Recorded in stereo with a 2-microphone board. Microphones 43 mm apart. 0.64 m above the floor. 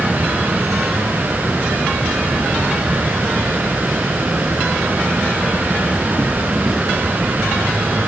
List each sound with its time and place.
0.0 s an insect: 5° right (ahead or behind)